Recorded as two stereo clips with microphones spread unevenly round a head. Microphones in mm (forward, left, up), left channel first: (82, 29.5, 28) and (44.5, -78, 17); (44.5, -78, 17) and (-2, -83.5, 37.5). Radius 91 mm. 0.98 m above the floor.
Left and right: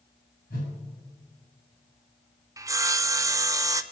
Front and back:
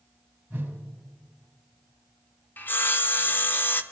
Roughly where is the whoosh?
Left.